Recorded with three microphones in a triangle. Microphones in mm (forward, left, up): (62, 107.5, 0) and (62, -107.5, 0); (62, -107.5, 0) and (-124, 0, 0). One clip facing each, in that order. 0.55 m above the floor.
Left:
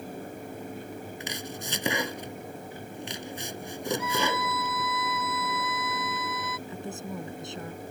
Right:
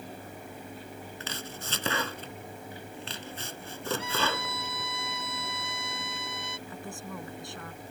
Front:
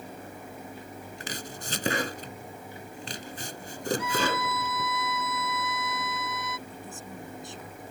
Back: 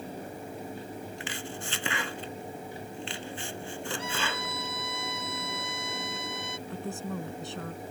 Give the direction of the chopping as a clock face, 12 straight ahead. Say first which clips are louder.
Left 4 dB, back 1 dB; 11 o'clock.